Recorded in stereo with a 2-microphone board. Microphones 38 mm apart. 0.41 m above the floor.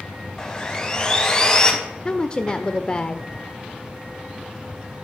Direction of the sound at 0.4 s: 25° left (ahead or behind).